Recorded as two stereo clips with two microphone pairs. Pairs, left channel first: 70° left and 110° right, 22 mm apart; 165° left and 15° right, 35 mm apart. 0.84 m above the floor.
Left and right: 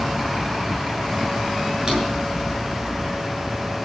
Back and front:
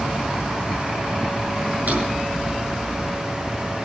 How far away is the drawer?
About 7.5 m.